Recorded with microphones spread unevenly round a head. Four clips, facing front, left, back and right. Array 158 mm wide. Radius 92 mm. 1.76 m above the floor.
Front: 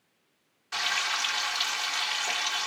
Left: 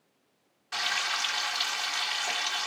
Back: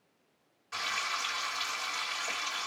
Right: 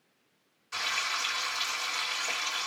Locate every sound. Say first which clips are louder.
0.7 s frying: left 2 dB, front 4 dB; 70° left, 3 m